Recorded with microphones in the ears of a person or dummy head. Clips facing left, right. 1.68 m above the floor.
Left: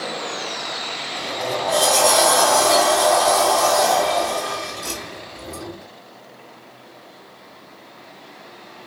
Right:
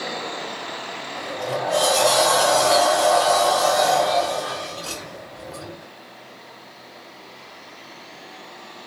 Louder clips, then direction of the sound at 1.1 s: Left 1 dB; 40° left (ahead or behind).